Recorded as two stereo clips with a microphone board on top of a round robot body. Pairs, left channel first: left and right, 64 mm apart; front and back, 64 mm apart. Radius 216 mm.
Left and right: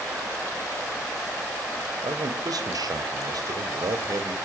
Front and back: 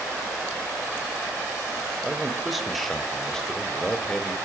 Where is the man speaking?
95° right, 3.5 m; by 4.3 s 75° right, 3.5 m.